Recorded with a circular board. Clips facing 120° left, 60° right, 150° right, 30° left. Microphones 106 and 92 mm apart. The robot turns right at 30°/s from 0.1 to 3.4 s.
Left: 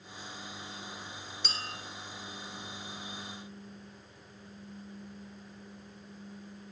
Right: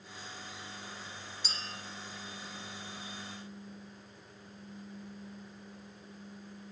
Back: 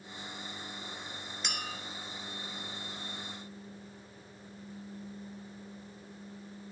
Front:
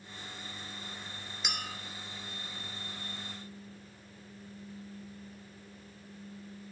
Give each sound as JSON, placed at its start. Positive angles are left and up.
{"t": 1.4, "sound": "a clink", "azimuth_deg": 115, "distance_m": 1.9}